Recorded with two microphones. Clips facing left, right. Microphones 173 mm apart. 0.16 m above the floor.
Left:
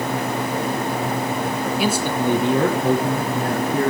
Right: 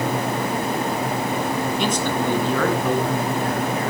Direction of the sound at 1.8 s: 5° left (ahead or behind).